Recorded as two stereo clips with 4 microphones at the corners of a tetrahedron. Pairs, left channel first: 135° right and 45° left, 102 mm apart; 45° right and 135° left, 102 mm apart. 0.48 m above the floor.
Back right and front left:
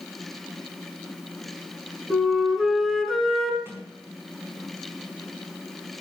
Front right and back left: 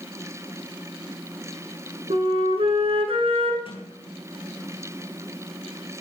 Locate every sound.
2.1 s a flute: 135° left, 2.5 m
3.6 s a sliding door: 20° right, 5.5 m